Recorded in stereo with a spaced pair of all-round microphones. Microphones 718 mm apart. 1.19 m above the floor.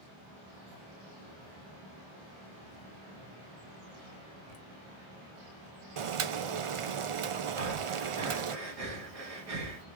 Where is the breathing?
55° right (ahead or behind), 1.1 m.